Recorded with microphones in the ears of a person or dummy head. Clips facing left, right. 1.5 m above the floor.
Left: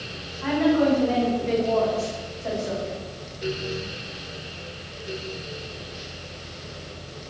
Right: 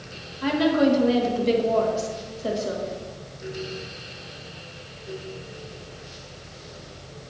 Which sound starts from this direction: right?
A woman speaking, at 0.4 s.